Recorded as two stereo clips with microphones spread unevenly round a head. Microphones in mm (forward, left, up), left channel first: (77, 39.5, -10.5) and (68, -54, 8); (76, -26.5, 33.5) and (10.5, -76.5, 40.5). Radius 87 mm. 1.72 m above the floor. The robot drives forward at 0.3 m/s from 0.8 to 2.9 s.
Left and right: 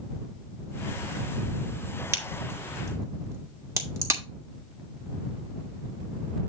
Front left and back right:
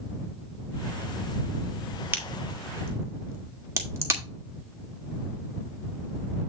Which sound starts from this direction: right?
A crack, at 2.1 s.